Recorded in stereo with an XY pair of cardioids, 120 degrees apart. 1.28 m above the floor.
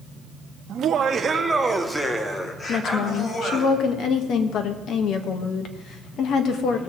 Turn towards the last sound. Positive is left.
turn(degrees=60)